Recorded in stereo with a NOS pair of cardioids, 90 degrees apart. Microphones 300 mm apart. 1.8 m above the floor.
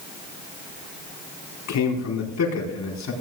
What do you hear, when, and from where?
1.7 s a man speaking: 60° left, 4.5 m